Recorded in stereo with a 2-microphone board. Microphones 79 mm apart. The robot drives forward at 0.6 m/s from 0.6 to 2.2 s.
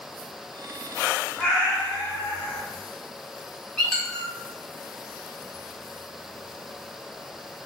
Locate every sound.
1.4 s a cat meowing: 15° left (ahead or behind), 1.9 m; by 2.6 s 10° left (ahead or behind), 2.5 m
3.8 s a squeak: 5° left (ahead or behind), 0.7 m